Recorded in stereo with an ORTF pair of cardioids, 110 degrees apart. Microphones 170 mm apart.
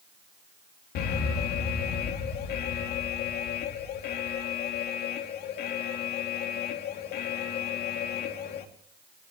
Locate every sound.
0.9 s an alarm: 70° left, 2.5 m